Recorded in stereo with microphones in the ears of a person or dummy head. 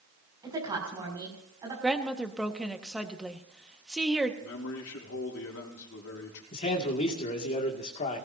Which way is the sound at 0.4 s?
15° right (ahead or behind).